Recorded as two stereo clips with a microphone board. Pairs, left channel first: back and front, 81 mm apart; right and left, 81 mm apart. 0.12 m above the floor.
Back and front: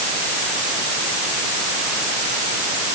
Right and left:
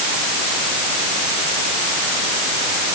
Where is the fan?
I don't hear a fan.